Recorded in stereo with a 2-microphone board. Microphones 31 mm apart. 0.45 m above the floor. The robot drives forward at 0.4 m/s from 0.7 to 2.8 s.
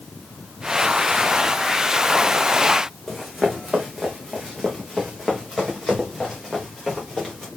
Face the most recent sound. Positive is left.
turn(degrees=10)  # may be behind; listen again after turning